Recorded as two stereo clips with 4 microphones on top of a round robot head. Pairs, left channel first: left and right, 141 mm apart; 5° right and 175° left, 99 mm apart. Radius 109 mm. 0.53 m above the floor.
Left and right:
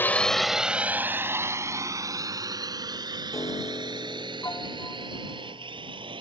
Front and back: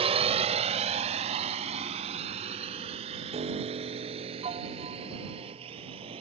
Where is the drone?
165° left; by 6.2 s 145° right.